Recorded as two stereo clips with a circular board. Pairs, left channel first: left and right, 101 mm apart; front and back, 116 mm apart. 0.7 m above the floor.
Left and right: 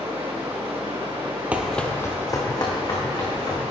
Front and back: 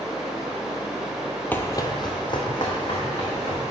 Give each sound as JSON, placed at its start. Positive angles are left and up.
{"t": 0.0, "sound": "running water", "azimuth_deg": -95, "distance_m": 2.0}
{"t": 1.5, "sound": "running footsteps", "azimuth_deg": -45, "distance_m": 0.7}